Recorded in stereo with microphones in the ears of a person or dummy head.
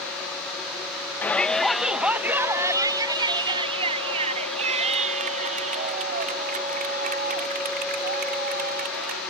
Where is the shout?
5° left (ahead or behind); by 9.2 s 55° right (ahead or behind).